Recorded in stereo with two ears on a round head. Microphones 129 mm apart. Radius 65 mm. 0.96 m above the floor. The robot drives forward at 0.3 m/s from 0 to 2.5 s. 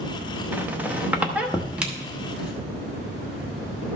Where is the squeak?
10° right (ahead or behind), 0.7 m; by 2.5 s 5° right (ahead or behind), 1.3 m.